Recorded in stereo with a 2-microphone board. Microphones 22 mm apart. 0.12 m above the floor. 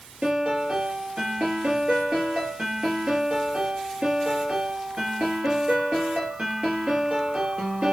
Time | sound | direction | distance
0.2 | a piano | 60° right (ahead or behind) | 3 m